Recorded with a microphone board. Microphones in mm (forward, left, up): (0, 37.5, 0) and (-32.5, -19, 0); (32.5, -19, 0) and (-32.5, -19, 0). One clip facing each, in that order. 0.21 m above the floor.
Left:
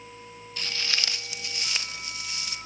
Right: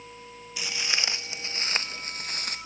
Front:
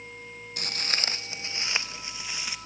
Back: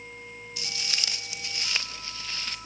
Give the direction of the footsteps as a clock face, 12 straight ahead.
1 o'clock.